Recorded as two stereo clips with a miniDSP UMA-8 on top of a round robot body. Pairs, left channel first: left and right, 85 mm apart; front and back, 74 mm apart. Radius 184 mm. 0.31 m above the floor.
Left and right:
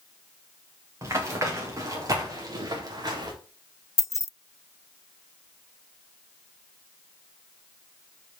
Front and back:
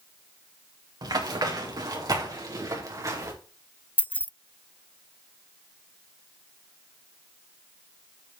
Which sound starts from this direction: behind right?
Running footsteps, at 1.0 s.